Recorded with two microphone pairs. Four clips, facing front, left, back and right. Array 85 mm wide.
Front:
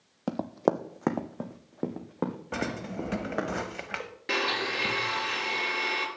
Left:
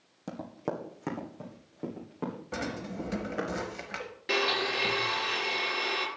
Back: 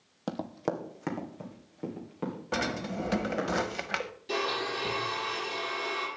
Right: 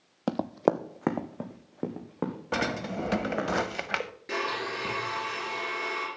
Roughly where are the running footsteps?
Right.